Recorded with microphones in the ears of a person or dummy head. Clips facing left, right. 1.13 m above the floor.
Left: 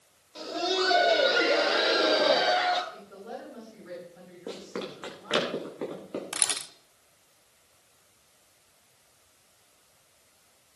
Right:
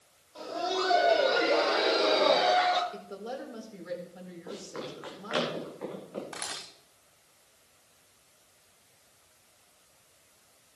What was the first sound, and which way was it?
Laughter, 30° left (ahead or behind).